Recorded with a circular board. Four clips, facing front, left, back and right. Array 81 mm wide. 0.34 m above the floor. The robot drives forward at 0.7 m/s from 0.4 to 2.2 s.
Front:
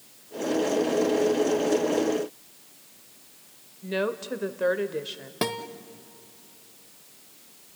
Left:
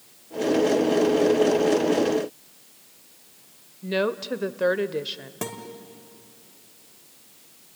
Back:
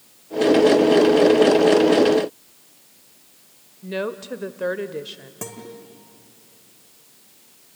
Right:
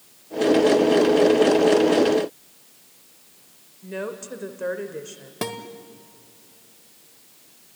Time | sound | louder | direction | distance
3.8 | a woman speaking | left 6 dB, back 1 dB | 90° left | 0.8 m
5.4 | a guitar | right 4 dB, front 7 dB | 25° right | 1.3 m